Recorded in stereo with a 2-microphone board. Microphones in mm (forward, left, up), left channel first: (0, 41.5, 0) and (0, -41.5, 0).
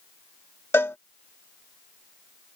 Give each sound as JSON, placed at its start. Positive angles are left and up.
{"t": 0.7, "sound": "a cowbell", "side_deg": 25}